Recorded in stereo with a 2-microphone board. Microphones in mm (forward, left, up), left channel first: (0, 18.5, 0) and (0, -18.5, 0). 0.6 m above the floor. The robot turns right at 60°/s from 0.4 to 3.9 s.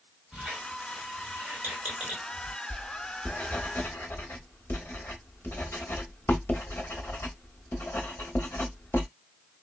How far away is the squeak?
About 1.2 m.